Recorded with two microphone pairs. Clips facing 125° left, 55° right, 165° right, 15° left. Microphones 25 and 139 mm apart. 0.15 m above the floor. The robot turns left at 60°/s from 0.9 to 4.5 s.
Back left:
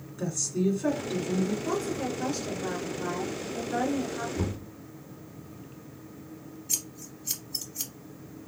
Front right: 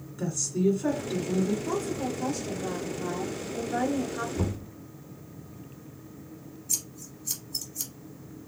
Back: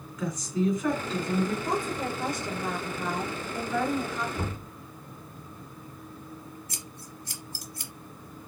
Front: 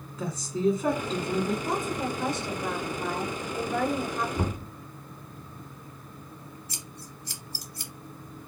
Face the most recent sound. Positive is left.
turn(degrees=-170)